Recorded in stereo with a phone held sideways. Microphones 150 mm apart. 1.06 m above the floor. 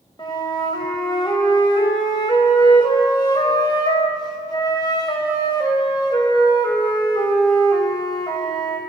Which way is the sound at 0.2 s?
30° left (ahead or behind).